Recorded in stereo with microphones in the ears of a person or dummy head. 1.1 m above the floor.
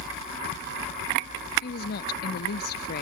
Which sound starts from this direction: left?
A woman speaking, at 1.6 s.